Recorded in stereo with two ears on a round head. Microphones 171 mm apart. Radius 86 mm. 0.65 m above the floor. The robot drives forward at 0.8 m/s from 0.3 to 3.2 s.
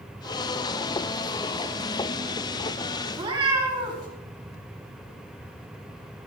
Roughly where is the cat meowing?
Right.